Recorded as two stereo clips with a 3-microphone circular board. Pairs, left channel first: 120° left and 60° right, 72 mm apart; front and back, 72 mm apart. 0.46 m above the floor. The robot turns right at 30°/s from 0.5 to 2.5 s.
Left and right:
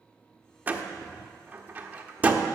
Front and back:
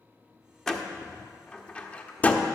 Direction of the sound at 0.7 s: 75° right.